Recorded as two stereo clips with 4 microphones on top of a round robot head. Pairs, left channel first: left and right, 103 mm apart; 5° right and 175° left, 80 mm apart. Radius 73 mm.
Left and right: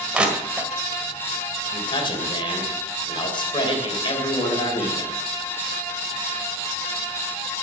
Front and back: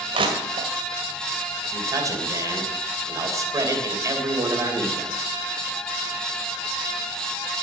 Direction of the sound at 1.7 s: 130° left.